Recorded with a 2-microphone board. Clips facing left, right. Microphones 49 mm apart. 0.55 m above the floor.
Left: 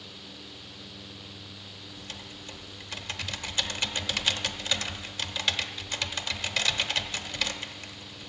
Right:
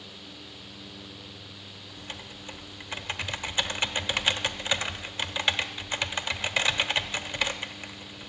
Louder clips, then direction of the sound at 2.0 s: Right 3 dB; 25° right (ahead or behind).